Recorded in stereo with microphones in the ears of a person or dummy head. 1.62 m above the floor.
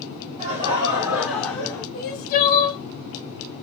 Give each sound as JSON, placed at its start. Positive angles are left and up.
{"t": 0.4, "sound": "laughter", "side_deg": -40, "distance_m": 1.3}
{"t": 1.9, "sound": "crying", "side_deg": 50, "distance_m": 0.7}